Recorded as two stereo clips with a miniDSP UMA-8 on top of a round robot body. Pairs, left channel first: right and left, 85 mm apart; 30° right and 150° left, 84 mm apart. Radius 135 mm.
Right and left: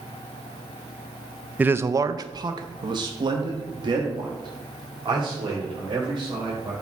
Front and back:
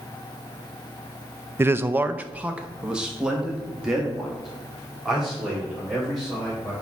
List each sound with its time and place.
1.6 s a man speaking: 140° left, 0.5 m; by 6.7 s 60° left, 3 m